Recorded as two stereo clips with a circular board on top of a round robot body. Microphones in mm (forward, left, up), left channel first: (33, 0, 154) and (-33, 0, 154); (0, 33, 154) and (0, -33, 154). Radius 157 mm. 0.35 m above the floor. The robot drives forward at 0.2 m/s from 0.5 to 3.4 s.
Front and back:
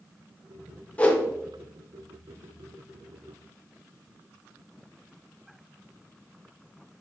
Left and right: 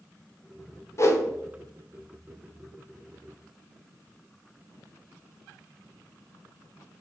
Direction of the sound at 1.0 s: 65° left.